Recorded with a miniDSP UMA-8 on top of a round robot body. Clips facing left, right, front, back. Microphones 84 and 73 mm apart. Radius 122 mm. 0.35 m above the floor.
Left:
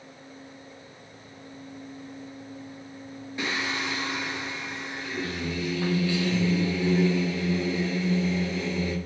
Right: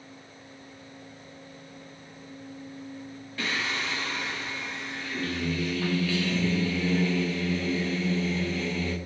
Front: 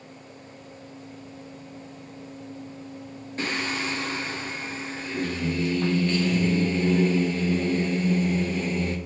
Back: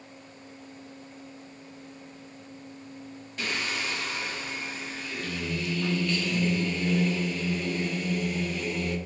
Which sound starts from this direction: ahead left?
Singing, at 3.4 s.